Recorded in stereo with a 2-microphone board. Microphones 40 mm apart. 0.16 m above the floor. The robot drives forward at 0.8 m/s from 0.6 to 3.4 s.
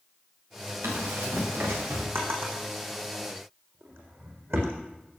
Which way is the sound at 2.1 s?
80° right.